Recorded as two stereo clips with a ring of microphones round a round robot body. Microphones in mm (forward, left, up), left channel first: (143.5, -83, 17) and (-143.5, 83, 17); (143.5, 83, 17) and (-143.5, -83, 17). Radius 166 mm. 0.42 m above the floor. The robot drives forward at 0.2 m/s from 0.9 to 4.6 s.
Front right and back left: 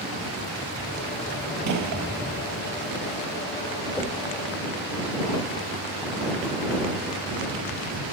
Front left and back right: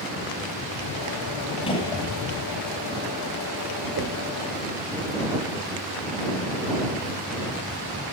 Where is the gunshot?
105° left, 1.1 m; by 2.0 s 110° left, 1.1 m.